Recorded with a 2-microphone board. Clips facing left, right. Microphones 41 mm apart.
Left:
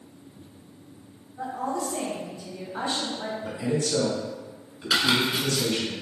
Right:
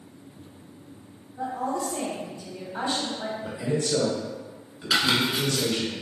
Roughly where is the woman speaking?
Centre.